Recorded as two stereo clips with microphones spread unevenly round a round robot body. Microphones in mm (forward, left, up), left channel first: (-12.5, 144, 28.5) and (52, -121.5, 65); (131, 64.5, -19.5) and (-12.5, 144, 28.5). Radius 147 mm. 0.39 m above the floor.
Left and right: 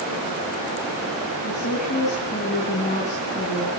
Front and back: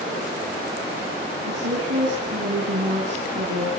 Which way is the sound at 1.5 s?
165° left.